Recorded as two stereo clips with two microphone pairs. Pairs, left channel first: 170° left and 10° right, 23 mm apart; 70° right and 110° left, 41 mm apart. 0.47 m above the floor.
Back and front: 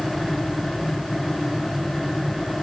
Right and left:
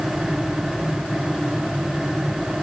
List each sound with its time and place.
Only background noise.